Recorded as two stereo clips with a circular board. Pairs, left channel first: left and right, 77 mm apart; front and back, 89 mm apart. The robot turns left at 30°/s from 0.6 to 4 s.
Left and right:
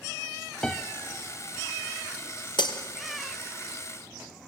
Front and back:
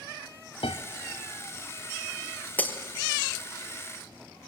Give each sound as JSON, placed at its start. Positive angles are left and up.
{"t": 0.6, "sound": "a piano", "azimuth_deg": 10, "distance_m": 1.1}
{"t": 2.6, "sound": "breaking glass", "azimuth_deg": 70, "distance_m": 1.4}